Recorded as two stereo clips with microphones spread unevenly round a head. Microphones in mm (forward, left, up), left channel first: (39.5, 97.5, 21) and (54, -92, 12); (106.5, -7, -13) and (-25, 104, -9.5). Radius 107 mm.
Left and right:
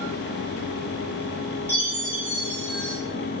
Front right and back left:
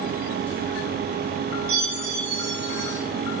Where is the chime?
175° left, 2.5 m.